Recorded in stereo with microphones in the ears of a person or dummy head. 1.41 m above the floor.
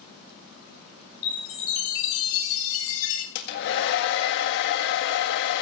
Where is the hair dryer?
60° left (ahead or behind), 1.6 m.